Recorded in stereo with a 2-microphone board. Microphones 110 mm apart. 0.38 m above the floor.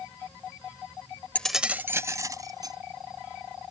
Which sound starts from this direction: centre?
Keys jangling, at 1.4 s.